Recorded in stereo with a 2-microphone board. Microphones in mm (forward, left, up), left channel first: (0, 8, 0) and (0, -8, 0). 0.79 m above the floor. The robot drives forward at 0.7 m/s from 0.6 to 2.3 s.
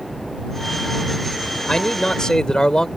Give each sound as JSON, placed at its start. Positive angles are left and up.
{"t": 1.7, "sound": "a man speaking", "side_deg": 50}